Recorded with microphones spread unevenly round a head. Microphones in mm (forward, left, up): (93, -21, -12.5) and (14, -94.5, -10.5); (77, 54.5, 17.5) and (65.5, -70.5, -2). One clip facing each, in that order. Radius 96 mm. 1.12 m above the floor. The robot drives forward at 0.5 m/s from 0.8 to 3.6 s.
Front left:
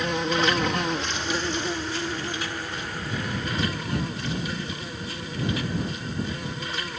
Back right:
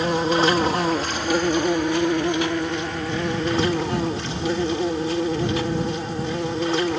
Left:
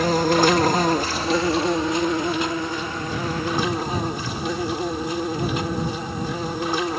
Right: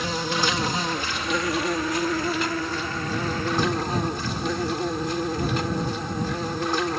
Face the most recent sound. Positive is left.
turn(degrees=170)